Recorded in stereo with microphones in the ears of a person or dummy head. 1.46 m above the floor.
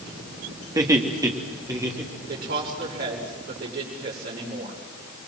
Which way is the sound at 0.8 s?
15° right (ahead or behind).